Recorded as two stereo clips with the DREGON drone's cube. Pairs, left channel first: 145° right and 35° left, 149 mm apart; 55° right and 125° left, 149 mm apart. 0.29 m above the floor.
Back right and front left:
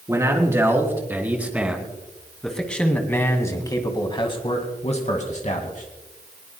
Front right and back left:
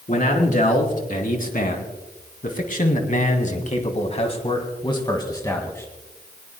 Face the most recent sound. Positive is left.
turn(degrees=-130)